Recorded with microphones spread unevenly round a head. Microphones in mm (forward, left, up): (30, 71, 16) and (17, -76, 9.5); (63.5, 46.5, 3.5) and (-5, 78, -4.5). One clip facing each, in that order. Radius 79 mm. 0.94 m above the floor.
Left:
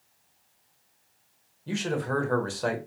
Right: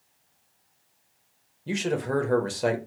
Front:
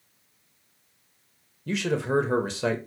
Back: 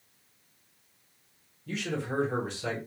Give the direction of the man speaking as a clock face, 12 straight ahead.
1 o'clock.